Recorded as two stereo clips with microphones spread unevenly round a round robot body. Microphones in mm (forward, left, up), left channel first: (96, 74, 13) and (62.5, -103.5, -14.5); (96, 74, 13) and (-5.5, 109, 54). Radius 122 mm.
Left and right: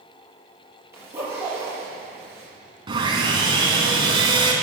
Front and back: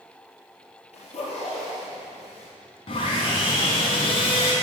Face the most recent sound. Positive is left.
turn(degrees=-40)